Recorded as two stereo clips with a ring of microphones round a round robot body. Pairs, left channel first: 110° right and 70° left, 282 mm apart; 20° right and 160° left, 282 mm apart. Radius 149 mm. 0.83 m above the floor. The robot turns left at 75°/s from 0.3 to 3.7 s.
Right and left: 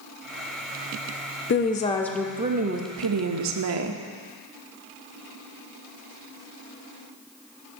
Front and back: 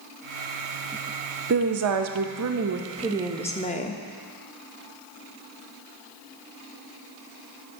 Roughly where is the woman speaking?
Behind right.